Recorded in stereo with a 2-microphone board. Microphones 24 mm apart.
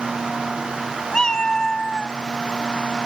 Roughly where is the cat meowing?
Left.